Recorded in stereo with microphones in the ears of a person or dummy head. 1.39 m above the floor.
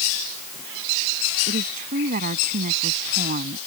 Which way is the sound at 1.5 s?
50° right (ahead or behind).